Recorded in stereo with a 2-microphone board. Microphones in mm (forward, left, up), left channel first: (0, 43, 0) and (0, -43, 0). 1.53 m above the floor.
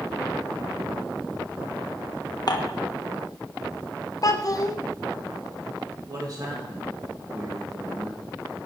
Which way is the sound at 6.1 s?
45° right (ahead or behind).